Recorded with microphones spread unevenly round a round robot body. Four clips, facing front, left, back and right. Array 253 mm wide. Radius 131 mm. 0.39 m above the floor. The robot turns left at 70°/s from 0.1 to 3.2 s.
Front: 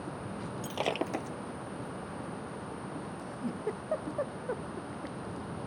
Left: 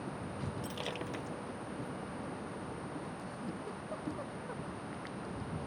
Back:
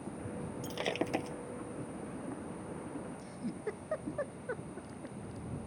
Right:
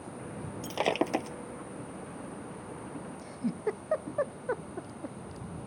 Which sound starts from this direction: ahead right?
Breaking glass, at 0.6 s.